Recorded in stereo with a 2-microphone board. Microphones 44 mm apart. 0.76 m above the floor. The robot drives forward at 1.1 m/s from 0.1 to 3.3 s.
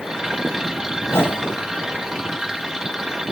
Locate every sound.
1.1 s a whoosh: 75° left (ahead or behind), 3 m; by 1.6 s 65° left (ahead or behind), 3.5 m